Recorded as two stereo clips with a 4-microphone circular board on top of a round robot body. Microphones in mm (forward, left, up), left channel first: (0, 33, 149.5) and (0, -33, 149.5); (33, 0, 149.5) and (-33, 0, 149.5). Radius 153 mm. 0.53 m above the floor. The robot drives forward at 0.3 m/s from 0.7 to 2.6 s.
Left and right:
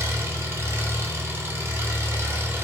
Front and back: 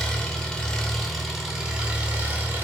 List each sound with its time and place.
0.0 s an engine running: 75° right, 0.9 m; by 2.6 s 130° right, 0.9 m